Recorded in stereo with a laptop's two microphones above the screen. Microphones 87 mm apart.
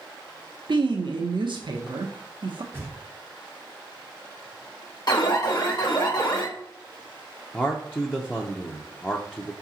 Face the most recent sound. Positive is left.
turn(degrees=15)  # may be behind; listen again after turning